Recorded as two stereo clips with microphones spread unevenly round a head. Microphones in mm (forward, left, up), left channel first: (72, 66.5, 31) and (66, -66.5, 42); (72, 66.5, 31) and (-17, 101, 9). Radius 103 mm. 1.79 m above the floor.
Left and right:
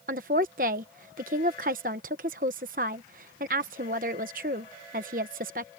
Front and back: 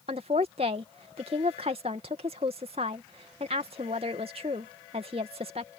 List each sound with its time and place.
0.1 s a woman speaking: 140° right